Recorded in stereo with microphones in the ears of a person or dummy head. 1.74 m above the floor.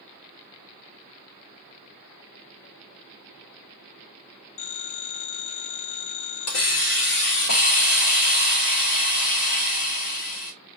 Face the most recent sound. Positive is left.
turn(degrees=75)  # may be behind; listen again after turning